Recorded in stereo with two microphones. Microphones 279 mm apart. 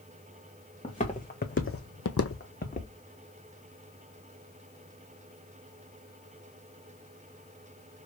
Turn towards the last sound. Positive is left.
turn(degrees=25)  # may be behind; listen again after turning